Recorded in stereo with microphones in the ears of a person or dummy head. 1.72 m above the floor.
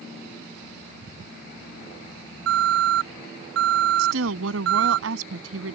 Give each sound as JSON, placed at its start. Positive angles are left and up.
{"t": 2.5, "sound": "an alarm", "side_deg": -70}
{"t": 4.0, "sound": "a woman speaking", "side_deg": -85}